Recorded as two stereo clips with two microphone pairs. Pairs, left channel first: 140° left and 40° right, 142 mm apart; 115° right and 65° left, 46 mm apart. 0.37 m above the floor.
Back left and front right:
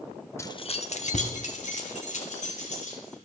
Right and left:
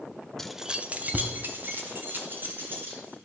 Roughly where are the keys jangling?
Behind.